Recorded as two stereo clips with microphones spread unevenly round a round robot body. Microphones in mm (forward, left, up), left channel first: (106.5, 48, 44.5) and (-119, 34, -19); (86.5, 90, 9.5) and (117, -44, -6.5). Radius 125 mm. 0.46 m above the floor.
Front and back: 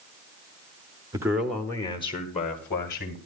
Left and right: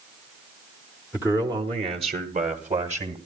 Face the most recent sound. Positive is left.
turn(degrees=-55)